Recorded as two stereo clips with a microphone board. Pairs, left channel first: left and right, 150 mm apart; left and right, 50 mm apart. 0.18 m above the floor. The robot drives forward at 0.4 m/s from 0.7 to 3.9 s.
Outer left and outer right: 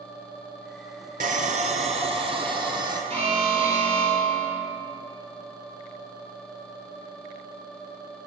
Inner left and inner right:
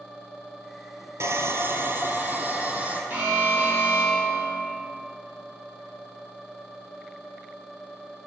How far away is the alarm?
About 2 m.